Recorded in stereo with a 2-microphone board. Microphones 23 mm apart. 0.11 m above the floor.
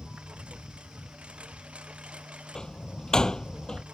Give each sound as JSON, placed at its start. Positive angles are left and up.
{"t": 0.0, "sound": "a lawn mower", "side_deg": -50}
{"t": 2.5, "sound": "a door slam", "side_deg": 25}